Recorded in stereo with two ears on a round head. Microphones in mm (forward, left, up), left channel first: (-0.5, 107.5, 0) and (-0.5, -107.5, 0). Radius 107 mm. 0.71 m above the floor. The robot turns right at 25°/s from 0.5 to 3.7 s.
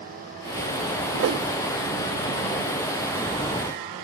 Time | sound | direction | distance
1.1 | a whoosh | 55° right (ahead or behind) | 0.6 m